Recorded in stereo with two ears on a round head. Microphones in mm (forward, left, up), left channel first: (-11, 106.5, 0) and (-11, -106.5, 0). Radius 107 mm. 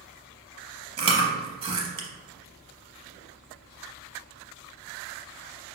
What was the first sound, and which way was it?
Chewing, 20° right (ahead or behind).